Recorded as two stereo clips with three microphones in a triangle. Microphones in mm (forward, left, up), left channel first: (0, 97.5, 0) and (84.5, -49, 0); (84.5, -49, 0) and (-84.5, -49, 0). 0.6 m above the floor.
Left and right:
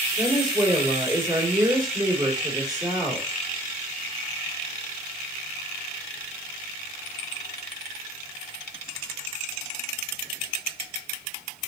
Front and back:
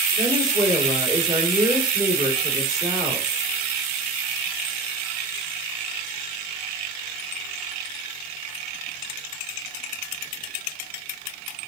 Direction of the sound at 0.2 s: 120° right.